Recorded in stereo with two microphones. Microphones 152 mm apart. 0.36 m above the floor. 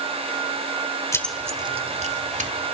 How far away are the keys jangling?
About 0.6 m.